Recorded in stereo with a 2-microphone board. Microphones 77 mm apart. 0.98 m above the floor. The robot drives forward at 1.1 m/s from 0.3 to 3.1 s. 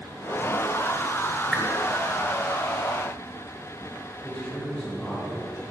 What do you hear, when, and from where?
1.5 s a whoosh: centre (ahead or behind), 1.5 m
4.2 s a man speaking: 10° left (ahead or behind), 4.5 m